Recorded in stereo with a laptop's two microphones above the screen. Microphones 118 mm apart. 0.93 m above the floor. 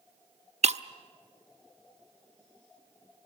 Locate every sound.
0.6 s breaking glass: 65° right (ahead or behind), 0.7 m